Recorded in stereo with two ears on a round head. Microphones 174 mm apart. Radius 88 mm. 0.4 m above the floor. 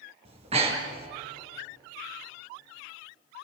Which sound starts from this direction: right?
Breathing, at 0.2 s.